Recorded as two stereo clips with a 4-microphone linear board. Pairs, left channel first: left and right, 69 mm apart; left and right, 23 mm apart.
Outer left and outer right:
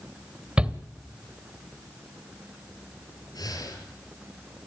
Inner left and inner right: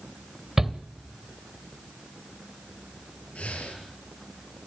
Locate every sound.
0.6 s a shout: 15° right (ahead or behind), 1.3 m
3.4 s breathing: 70° left (ahead or behind), 6.5 m